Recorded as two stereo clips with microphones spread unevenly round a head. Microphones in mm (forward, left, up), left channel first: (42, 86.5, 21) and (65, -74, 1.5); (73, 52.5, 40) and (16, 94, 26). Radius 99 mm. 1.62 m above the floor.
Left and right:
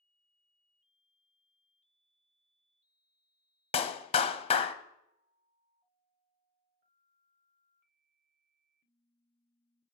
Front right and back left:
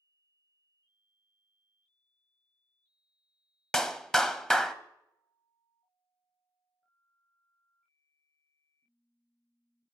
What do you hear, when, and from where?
3.7 s a clap: 45° left, 0.7 m